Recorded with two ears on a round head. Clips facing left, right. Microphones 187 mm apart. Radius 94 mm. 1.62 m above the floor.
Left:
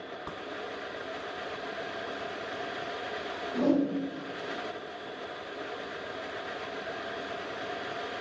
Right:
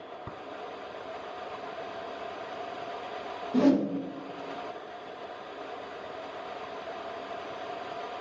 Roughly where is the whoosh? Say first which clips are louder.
Right 3 dB; right.